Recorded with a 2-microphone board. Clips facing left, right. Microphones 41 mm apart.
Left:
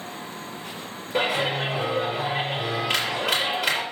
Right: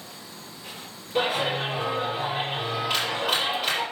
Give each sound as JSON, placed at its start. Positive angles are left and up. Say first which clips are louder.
{"t": 1.1, "sound": "a clap", "louder": "left 1 dB", "side_deg": 75, "distance_m": 4.0}